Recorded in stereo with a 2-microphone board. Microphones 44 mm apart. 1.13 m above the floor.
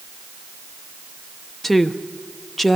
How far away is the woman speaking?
About 0.6 m.